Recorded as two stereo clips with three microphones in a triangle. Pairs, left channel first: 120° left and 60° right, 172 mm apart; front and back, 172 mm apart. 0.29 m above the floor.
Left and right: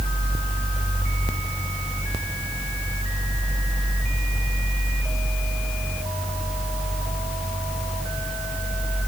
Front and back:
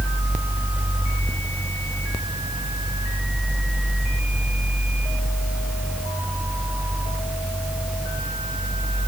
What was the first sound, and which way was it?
Only background noise.